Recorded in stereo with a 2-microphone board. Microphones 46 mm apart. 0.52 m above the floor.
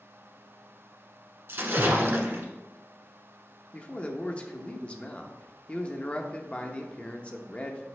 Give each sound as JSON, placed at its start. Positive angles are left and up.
{"t": 1.5, "sound": "a splash", "side_deg": -55, "distance_m": 1.1}
{"t": 3.7, "sound": "a man speaking", "side_deg": 25, "distance_m": 0.7}